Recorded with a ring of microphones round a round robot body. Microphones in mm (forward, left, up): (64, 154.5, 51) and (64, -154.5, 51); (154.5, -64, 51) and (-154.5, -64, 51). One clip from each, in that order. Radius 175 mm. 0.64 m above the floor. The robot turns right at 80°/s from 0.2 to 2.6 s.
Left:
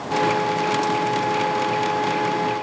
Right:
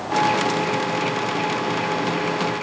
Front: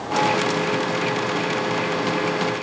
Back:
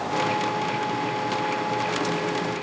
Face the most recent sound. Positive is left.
No sound to turn to.